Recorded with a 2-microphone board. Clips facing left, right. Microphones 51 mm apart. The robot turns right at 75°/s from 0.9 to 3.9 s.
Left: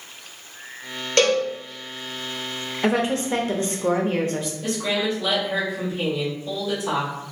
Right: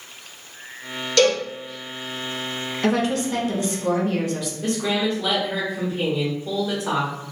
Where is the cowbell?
40° left (ahead or behind), 1.5 m; by 1.4 s 45° left (ahead or behind), 1.5 m.